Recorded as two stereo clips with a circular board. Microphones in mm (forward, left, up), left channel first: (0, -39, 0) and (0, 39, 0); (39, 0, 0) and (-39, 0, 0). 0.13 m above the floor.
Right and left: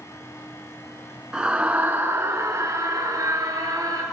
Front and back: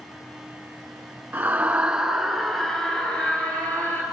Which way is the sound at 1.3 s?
155° left.